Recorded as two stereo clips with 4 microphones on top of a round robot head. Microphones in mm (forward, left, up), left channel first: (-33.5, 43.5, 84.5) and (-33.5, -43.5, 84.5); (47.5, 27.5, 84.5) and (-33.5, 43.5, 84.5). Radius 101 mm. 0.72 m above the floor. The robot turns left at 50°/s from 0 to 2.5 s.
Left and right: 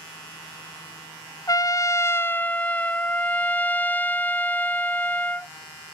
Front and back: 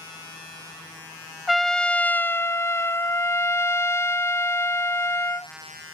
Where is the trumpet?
80° left; by 5.5 s 30° left.